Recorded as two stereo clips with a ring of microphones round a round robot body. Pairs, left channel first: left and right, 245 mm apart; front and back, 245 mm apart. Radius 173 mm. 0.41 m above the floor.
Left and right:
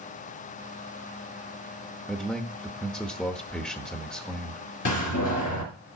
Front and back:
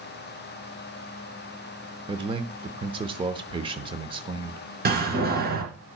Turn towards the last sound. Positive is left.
turn(degrees=130)